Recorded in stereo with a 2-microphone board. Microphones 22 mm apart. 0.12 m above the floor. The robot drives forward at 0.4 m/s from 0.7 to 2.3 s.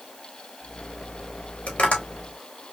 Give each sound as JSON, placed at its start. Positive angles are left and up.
{"t": 1.7, "sound": "tapping", "side_deg": 80, "distance_m": 3.0}